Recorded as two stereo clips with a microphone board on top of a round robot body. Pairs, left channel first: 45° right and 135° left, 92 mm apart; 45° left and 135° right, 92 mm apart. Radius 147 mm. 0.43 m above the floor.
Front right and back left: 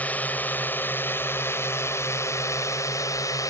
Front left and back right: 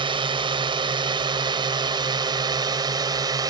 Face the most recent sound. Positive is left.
turn(degrees=-95)